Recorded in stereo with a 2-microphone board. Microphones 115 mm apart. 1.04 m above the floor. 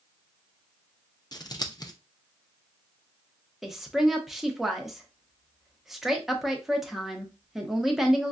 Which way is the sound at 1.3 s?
35° left (ahead or behind).